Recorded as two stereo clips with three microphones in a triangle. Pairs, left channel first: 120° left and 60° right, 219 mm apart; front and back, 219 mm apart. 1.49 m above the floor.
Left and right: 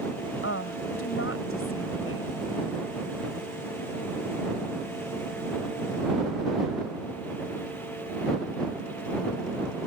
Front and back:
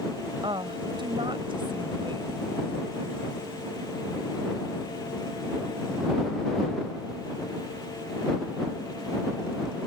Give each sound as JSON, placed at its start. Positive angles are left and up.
{"t": 0.4, "sound": "a woman speaking", "azimuth_deg": 110}